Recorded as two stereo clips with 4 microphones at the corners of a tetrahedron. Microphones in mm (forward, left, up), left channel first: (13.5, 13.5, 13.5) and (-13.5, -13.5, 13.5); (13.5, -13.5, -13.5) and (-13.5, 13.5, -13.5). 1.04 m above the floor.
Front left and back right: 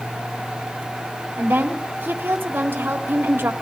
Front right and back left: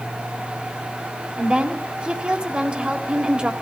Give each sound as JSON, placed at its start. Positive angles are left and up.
{"t": 1.4, "sound": "a woman speaking", "azimuth_deg": -160, "distance_m": 2.0}